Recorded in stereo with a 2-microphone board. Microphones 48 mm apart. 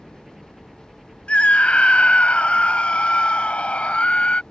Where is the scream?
25° left (ahead or behind).